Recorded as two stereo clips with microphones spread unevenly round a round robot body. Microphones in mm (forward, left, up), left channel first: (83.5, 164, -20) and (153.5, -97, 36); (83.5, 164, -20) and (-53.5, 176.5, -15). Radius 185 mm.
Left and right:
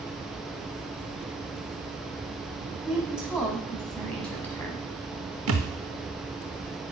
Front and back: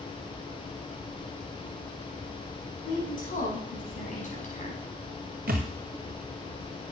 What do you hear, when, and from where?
2.9 s a woman speaking: 10° left, 5.5 m; by 5.4 s 30° left, 5 m
5.5 s a thud: 130° right, 0.6 m